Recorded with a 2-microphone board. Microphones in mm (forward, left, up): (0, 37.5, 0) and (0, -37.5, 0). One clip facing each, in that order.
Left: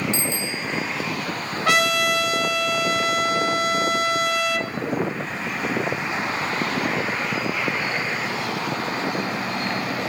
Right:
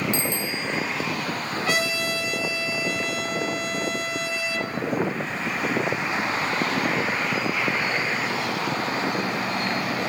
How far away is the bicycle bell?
About 3 m.